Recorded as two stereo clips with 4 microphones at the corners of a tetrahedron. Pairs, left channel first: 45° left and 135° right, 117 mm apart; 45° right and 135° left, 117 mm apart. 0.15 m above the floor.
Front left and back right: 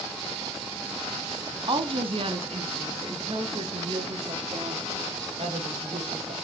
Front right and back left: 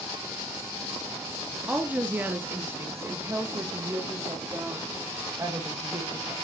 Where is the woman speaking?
150° right, 1.4 m; by 6.3 s 165° right, 4.5 m.